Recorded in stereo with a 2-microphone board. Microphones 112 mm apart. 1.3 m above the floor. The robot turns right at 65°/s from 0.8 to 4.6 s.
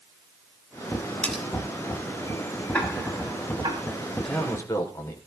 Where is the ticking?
10° left (ahead or behind), 4.5 m; by 3.8 s 60° right (ahead or behind), 4.5 m.